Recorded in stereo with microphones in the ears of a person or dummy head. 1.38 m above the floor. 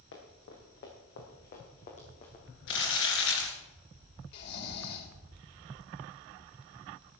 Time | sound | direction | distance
0.1 | running footsteps | 70° left (ahead or behind) | 5 m
2.7 | crumpling | 75° left (ahead or behind) | 4 m
4.3 | snoring | 60° left (ahead or behind) | 2.5 m